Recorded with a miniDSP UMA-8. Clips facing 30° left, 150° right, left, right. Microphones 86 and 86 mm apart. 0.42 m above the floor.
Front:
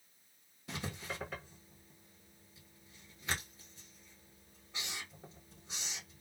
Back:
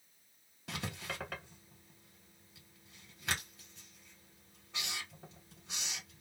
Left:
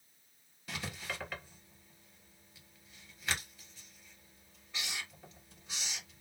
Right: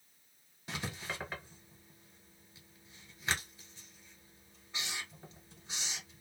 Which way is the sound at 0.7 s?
160° right.